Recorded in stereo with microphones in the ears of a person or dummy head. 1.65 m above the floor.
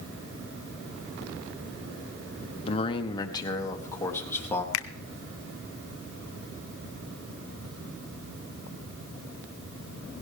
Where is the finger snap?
75° left (ahead or behind), 0.7 m.